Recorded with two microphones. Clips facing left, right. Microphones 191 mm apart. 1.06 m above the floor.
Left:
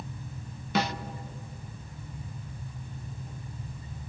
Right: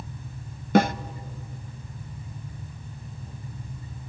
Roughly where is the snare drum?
Right.